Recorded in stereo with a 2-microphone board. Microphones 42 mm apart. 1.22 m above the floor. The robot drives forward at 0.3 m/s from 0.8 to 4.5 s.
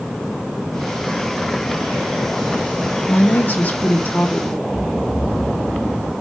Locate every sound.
3.1 s a woman speaking: 50° left (ahead or behind), 0.9 m; by 4.6 s 35° left (ahead or behind), 1.2 m
4.7 s snoring: 15° left (ahead or behind), 1.8 m